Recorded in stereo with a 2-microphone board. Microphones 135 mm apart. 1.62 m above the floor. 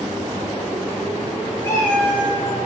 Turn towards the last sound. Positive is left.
turn(degrees=20)  # may be behind; listen again after turning